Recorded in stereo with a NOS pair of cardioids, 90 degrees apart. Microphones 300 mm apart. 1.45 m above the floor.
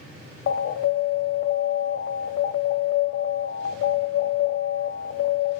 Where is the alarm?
45° left, 0.7 m.